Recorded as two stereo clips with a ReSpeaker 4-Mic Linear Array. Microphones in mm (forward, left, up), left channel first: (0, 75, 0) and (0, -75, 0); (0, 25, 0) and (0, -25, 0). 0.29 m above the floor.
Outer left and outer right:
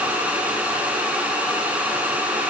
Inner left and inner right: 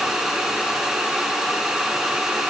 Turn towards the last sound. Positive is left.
No sound to turn to.